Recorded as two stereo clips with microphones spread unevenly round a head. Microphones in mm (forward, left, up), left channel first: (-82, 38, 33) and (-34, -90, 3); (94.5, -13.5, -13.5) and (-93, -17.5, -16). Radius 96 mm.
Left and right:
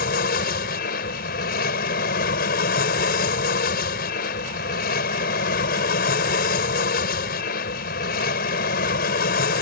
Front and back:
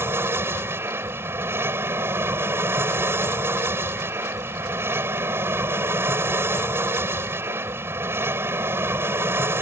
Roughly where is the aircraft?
Left.